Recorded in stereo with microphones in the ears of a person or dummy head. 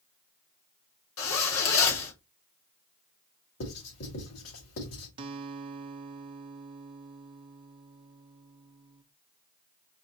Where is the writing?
80° left, 3 m.